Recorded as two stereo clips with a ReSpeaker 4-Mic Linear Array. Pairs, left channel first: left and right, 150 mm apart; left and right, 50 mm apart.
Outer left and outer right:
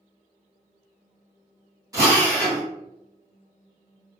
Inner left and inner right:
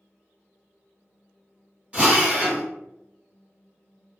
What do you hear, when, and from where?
1.9 s a drill: 25° right (ahead or behind), 1.3 m